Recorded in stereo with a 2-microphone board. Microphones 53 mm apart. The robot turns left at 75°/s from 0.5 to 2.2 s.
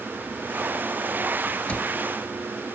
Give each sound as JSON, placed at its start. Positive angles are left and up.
{"t": 1.7, "sound": "a cupboard door", "side_deg": 25}